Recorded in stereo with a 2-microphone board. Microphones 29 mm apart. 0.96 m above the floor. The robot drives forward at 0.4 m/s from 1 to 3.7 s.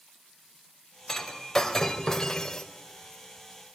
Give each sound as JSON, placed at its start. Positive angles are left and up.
{"t": 1.1, "sound": "breaking glass", "side_deg": 15, "distance_m": 2.5}